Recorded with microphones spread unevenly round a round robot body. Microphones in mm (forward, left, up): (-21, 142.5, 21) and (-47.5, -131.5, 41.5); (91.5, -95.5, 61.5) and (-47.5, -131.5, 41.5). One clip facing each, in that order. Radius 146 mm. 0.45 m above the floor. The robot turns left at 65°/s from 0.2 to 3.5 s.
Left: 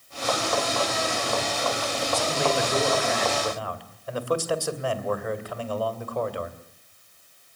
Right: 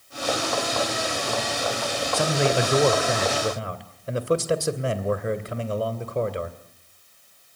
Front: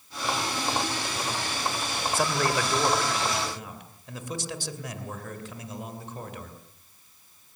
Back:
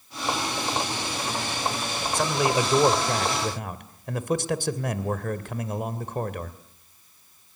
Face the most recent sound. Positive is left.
turn(degrees=-160)